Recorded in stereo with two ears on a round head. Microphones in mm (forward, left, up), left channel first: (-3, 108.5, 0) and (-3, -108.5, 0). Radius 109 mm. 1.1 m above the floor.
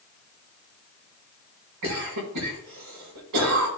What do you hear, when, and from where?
1.8 s a cough: 80° right, 5 m